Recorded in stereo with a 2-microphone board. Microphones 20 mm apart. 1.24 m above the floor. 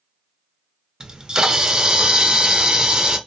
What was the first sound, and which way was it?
A camera shutter, 35° right (ahead or behind).